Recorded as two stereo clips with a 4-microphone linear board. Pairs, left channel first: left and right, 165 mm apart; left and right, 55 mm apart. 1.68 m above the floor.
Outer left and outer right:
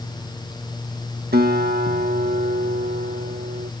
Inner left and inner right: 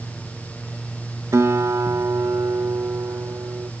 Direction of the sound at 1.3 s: 70° right (ahead or behind).